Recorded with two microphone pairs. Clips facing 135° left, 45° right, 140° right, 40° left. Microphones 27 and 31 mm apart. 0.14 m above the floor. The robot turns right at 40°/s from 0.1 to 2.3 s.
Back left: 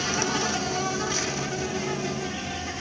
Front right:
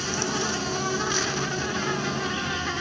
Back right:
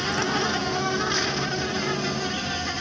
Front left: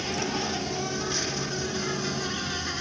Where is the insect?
145° right, 1.5 m; by 2.8 s 60° right, 1.5 m.